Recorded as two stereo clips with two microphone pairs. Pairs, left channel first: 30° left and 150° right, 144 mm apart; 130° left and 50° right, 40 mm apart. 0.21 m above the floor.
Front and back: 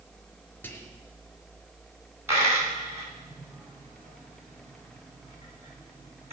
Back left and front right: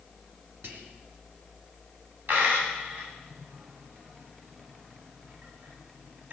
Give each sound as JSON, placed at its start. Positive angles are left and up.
{"t": 0.6, "sound": "whispering", "azimuth_deg": -45, "distance_m": 2.5}
{"t": 2.3, "sound": "a dropped coin", "azimuth_deg": -80, "distance_m": 9.0}